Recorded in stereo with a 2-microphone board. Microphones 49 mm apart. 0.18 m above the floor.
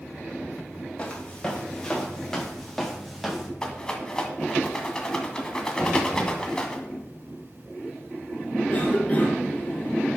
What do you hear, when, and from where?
1.0 s footsteps: 15° left (ahead or behind), 4 m; by 3.5 s 5° right (ahead or behind), 3 m
3.6 s a rattle: 15° left (ahead or behind), 1.6 m
5.8 s knocking: 30° right (ahead or behind), 5 m
8.7 s a cough: 25° left (ahead or behind), 3 m